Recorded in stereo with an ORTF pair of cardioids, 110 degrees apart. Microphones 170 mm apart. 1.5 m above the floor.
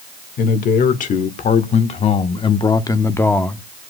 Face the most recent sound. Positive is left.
turn(degrees=0)